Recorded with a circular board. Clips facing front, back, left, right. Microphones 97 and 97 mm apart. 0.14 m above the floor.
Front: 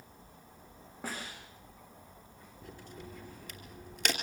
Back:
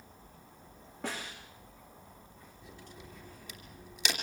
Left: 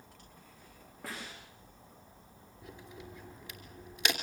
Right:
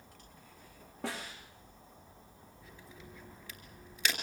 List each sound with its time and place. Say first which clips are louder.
1.0 s a snare drum: back 2 dB, right 4 dB; 80° right, 7 m
2.6 s a crack: front 4 dB, left 5 dB; 20° left, 3 m